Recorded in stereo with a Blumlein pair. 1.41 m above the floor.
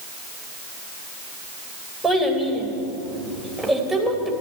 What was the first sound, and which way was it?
A child speaking, 10° right.